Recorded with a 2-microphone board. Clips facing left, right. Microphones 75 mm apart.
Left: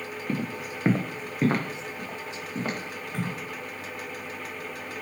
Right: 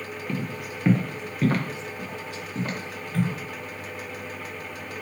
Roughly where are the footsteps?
Left.